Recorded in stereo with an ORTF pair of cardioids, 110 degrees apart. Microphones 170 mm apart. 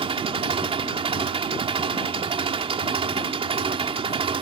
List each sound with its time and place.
0.0 s an engine running: 35° right